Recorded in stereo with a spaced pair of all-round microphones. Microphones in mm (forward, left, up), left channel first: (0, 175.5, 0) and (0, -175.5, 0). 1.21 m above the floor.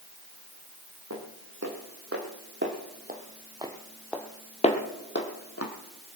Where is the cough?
I don't hear a cough.